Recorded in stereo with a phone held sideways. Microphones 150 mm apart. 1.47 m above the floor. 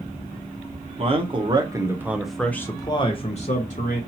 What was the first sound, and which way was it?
A man speaking, 40° right (ahead or behind).